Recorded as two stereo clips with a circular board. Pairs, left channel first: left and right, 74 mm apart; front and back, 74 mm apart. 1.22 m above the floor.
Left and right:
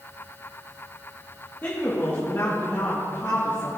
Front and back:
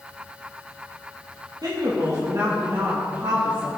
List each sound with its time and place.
1.6 s a woman speaking: 150° left, 1.9 m; by 3.7 s 125° left, 2.5 m